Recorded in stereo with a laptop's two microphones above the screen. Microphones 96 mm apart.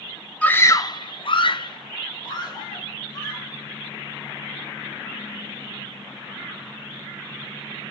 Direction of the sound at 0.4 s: 15° left (ahead or behind).